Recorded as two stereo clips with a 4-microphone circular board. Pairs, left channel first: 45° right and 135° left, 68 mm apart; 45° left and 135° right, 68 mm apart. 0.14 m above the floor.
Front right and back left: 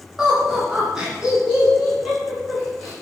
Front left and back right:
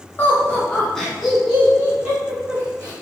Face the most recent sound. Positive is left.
turn(degrees=-150)